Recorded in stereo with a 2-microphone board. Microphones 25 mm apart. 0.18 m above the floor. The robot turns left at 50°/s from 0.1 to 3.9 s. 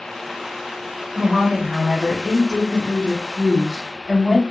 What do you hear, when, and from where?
1.1 s a woman speaking: 25° right (ahead or behind), 1.2 m; by 4.4 s 15° left (ahead or behind), 1.2 m